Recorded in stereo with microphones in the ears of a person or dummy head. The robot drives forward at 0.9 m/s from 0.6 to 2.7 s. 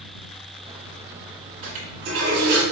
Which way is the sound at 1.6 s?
45° right (ahead or behind).